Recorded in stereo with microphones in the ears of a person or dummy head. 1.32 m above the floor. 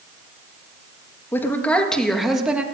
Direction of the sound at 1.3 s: 15° left (ahead or behind).